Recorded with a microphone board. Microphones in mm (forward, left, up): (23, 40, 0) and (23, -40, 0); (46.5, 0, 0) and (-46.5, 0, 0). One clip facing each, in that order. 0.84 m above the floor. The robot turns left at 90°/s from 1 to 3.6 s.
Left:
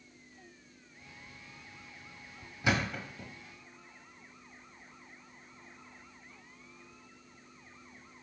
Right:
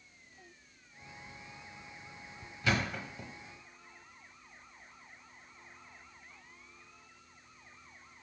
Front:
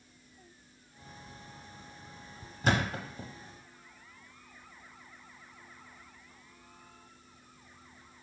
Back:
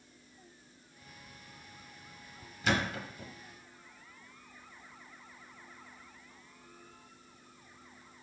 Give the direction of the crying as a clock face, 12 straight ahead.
No crying in this recording.